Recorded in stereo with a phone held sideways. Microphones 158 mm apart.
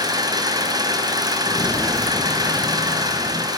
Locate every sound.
0.0 s an engine running: 25° right (ahead or behind), 5.5 m
1.4 s footsteps: 25° left (ahead or behind), 1.1 m; by 3.5 s 25° right (ahead or behind), 3 m